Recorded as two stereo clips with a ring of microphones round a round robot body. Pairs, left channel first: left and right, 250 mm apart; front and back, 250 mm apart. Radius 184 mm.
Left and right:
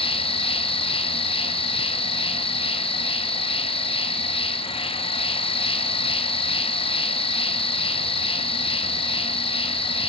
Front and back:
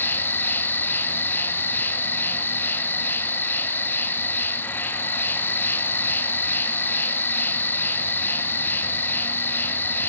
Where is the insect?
70° left, 1.6 m.